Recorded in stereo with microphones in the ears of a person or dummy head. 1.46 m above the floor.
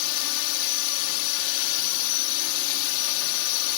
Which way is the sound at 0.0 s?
80° left.